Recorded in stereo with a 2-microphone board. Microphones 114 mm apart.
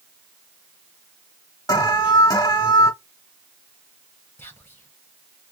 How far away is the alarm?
About 0.8 m.